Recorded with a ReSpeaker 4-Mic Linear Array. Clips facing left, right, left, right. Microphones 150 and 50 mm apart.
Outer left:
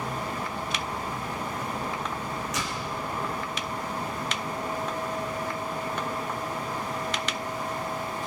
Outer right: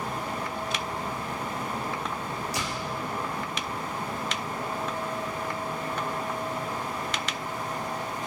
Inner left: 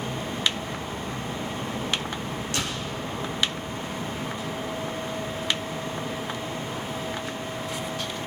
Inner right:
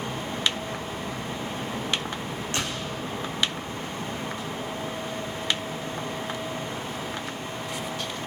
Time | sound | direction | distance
2.5 | a door slam | 30° right (ahead or behind) | 5 m